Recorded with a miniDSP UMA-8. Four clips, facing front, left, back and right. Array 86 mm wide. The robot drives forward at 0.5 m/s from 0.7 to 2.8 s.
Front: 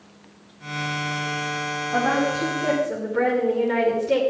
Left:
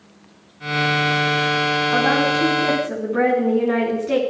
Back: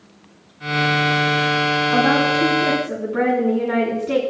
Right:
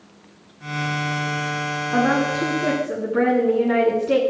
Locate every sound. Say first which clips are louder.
1.9 s a woman speaking: right 1 dB, back 3 dB; 140° left, 9.5 m